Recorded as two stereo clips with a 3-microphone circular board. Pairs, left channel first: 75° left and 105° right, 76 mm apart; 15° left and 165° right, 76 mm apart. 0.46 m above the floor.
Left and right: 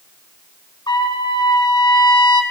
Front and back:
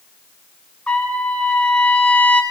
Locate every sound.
0.9 s a trumpet: 90° left, 0.7 m